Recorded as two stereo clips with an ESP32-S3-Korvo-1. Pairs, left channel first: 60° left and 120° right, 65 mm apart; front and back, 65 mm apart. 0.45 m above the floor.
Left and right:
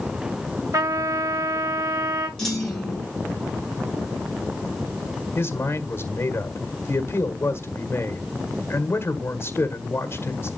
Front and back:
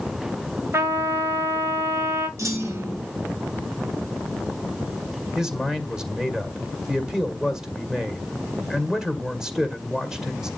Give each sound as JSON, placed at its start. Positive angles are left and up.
{"t": 0.7, "sound": "a trumpet", "azimuth_deg": -140, "distance_m": 2.0}
{"t": 2.4, "sound": "a clunk", "azimuth_deg": 140, "distance_m": 3.0}
{"t": 5.3, "sound": "a man speaking", "azimuth_deg": 100, "distance_m": 1.8}